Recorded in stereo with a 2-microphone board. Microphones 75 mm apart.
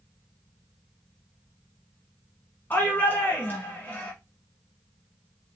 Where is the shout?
25° left (ahead or behind), 1.2 m.